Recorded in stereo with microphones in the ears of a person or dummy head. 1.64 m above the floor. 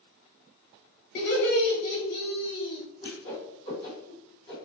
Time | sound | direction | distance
1.1 | laughter | 55° left (ahead or behind) | 1.0 m
3.0 | a whoosh | 25° left (ahead or behind) | 1.8 m